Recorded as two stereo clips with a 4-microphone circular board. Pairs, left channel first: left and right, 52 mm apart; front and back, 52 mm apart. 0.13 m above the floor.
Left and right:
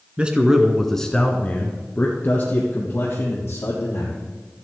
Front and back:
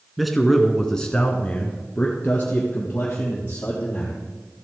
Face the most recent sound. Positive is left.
turn(degrees=60)